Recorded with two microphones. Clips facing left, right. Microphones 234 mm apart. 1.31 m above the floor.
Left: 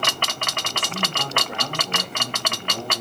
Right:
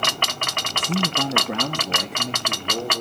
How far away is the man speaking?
About 0.9 m.